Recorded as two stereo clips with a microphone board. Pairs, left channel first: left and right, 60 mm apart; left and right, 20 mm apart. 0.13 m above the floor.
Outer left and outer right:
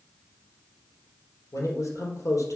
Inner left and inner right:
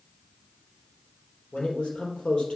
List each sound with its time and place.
1.5 s a man speaking: 65° left (ahead or behind), 3 m